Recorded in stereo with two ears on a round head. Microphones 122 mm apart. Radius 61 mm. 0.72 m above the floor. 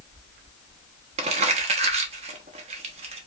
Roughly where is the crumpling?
Right.